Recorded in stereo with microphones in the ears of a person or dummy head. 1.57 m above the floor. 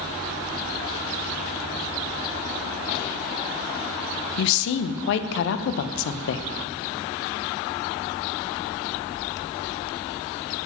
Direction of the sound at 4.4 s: 65° left (ahead or behind).